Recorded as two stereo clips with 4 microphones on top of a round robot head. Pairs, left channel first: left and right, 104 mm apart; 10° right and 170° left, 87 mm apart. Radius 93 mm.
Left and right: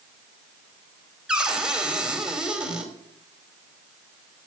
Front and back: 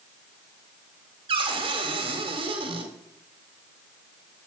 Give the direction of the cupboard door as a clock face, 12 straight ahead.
6 o'clock.